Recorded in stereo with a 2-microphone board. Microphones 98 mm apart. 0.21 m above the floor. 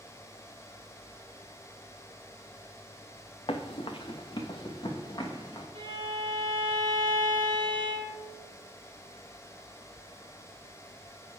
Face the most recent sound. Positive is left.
turn(degrees=-55)  # may be behind; listen again after turning